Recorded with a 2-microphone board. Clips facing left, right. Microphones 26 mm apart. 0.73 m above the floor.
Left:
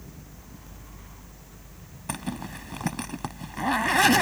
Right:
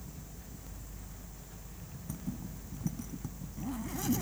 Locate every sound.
2.1 s a zipper: 75° left (ahead or behind)